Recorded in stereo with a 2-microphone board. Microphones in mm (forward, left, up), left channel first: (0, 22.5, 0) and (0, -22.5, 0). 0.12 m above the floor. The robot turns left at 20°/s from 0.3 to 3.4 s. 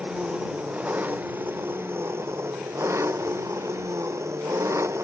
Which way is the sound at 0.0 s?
20° right.